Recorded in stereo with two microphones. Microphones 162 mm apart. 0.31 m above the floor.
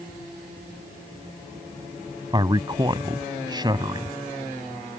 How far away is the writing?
I don't hear writing.